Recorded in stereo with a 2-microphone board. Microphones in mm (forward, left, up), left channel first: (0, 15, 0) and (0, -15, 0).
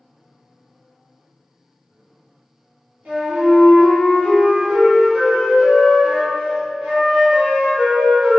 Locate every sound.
3.0 s a flute: 55° right (ahead or behind), 1.4 m